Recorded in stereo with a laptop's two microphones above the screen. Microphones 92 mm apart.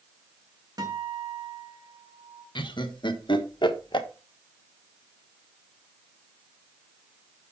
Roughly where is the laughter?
Left.